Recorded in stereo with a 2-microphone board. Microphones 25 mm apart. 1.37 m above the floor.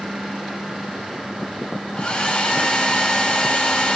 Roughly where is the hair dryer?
Left.